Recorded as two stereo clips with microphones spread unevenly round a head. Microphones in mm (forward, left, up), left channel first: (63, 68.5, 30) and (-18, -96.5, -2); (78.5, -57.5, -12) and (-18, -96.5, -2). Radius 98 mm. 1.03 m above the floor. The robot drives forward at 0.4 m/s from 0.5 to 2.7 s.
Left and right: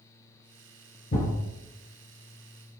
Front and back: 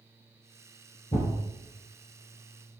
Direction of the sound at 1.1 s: 70° left.